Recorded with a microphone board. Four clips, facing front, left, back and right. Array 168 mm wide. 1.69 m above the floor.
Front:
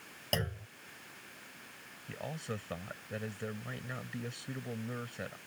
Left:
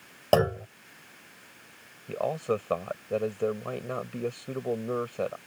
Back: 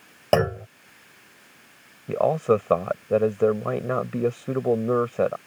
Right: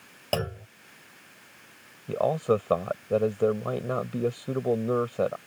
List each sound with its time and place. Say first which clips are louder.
0.3 s a clunk: left 7 dB, back 17 dB; 150° left
2.1 s a man speaking: right 5 dB, back 21 dB; 165° right